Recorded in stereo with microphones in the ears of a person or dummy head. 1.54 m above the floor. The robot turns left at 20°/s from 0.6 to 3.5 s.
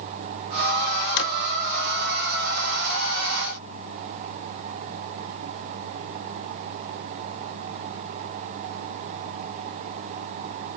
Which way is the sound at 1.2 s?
65° left (ahead or behind).